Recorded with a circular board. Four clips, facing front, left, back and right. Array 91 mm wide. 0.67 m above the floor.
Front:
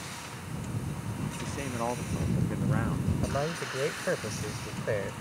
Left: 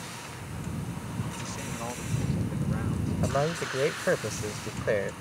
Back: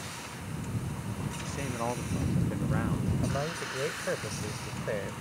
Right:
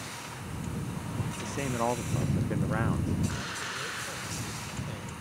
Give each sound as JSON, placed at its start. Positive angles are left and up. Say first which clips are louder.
{"t": 1.4, "sound": "a man speaking", "louder": "right 5 dB, front 1 dB", "azimuth_deg": -85}
{"t": 3.2, "sound": "a man speaking", "louder": "left 8 dB, front 1 dB", "azimuth_deg": 80}